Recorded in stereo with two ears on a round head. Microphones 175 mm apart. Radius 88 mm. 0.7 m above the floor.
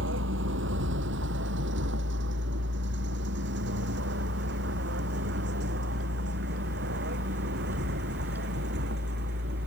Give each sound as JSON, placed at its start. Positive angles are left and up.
{"t": 0.0, "sound": "a vehicle", "side_deg": -75}